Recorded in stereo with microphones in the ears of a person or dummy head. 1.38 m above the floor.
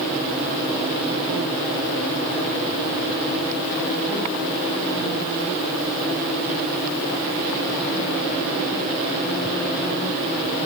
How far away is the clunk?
No clunk in this recording.